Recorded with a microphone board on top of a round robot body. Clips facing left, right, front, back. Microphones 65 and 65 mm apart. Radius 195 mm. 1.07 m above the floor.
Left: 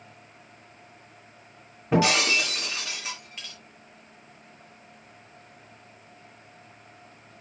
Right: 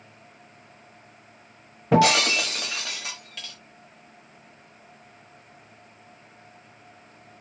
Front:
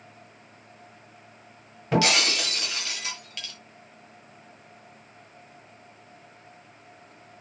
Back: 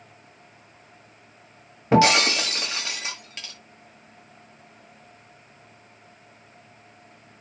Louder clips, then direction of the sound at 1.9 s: Right 3 dB, back 6 dB; 120° right.